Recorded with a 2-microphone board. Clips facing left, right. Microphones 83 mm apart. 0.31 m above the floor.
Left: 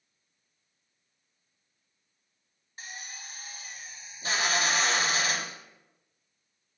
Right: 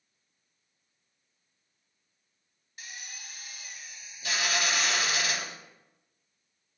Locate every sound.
2.8 s a drill: 35° left (ahead or behind), 0.6 m